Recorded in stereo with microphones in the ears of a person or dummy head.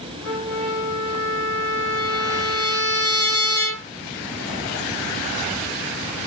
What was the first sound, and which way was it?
A trumpet, 60° left (ahead or behind).